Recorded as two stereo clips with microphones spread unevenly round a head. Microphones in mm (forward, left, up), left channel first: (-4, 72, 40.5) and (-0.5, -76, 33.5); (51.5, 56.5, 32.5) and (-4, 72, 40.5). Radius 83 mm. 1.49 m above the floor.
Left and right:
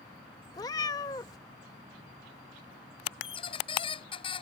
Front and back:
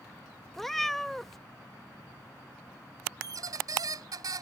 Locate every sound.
0.5 s a cat meowing: 85° left
3.2 s a squeak: 150° left